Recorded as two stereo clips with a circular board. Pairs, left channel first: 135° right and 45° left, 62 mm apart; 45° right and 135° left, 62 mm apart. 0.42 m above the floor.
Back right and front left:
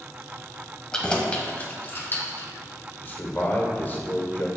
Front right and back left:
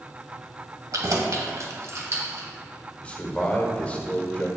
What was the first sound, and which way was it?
Keys jangling, 150° left.